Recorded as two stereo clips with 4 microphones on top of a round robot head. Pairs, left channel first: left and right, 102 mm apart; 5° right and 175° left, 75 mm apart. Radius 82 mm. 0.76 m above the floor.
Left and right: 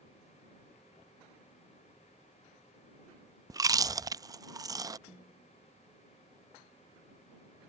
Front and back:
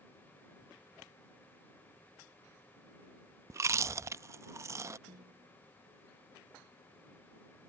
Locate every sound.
3.5 s chewing: 140° right
5.1 s a snare drum: 175° left